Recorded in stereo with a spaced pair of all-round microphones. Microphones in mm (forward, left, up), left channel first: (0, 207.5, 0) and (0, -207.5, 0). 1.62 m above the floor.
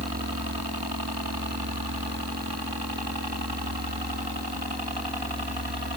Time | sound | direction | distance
0.0 | a helicopter | 60° right (ahead or behind) | ?